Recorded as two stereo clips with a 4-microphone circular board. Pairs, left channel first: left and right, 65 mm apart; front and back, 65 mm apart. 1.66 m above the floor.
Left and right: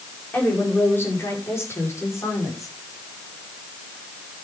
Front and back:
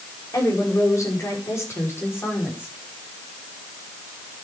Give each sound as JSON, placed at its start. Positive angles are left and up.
{"t": 0.3, "sound": "a woman speaking", "azimuth_deg": 30, "distance_m": 5.0}